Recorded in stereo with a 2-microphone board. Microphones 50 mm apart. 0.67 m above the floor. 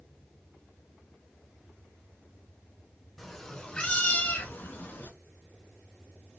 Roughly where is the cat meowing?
Centre.